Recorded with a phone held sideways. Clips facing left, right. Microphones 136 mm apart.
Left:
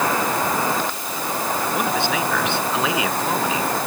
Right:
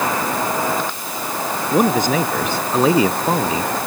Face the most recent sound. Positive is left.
turn(degrees=-40)  # may be behind; listen again after turning